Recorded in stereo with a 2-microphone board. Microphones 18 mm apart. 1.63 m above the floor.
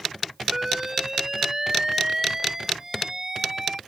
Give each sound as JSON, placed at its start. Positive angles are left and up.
{"t": 0.5, "sound": "an alarm", "side_deg": -30}